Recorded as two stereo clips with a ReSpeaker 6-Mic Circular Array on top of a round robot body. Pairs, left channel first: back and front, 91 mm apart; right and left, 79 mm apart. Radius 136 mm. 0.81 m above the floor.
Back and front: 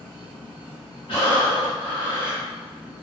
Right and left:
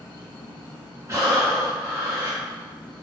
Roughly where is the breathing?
Behind left.